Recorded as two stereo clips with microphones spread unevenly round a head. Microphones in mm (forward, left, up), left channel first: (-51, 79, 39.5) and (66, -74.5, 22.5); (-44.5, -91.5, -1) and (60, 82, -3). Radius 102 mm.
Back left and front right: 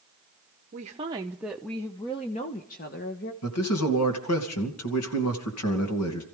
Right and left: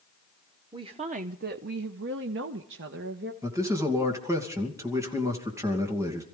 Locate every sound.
0.7 s a woman speaking: 5° right, 0.8 m; by 3.3 s 95° left, 1.3 m
3.4 s a man speaking: 135° left, 2.5 m